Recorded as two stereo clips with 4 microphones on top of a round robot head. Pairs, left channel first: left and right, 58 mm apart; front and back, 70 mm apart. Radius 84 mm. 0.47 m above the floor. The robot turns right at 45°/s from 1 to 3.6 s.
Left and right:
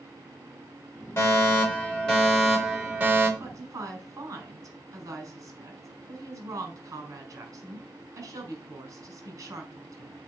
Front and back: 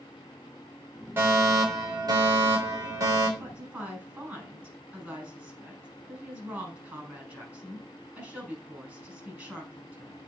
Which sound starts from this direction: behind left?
A fire alarm, at 1.2 s.